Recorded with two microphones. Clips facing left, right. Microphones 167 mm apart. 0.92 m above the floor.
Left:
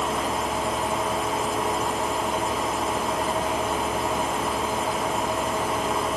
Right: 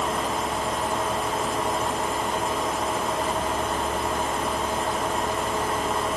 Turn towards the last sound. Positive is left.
No sound to turn to.